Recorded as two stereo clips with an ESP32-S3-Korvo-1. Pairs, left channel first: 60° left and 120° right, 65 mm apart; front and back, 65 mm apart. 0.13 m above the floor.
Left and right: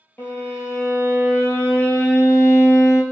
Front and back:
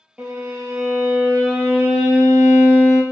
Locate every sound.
0.2 s a violin: 110° left, 1.0 m